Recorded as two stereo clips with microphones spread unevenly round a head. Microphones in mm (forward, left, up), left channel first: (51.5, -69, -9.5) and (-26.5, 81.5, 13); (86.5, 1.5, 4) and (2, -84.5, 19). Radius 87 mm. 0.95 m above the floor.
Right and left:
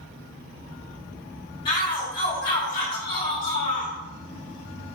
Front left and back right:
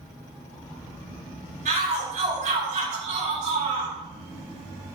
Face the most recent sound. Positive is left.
turn(degrees=-130)